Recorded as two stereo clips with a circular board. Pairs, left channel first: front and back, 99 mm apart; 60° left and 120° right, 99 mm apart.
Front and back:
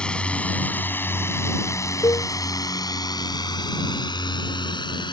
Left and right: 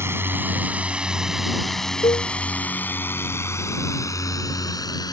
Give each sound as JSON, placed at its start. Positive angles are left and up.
{"t": 0.0, "sound": "a drone", "azimuth_deg": -75}
{"t": 2.0, "sound": "a cowbell", "azimuth_deg": 50}